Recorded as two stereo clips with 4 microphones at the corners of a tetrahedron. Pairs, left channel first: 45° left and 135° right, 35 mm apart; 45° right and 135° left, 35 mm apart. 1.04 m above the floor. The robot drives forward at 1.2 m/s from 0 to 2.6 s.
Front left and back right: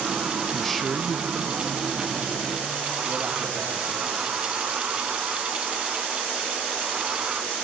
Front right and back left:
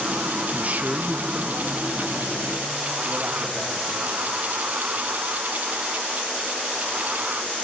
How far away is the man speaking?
About 0.6 m.